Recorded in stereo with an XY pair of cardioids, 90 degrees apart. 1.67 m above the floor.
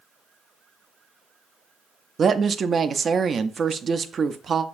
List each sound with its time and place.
2.2 s a woman speaking: 50° right, 0.5 m